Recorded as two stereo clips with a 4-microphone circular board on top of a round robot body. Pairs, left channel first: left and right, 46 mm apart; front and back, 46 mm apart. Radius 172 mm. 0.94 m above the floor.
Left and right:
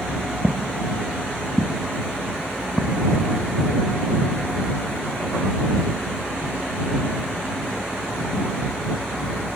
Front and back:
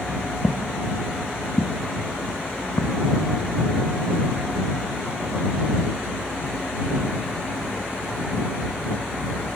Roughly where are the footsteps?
Right.